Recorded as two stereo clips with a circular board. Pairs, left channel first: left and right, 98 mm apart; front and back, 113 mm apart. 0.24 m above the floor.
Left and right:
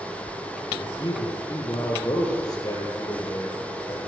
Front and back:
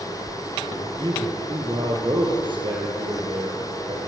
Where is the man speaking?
130° left, 7 m; by 4.0 s 145° left, 9 m.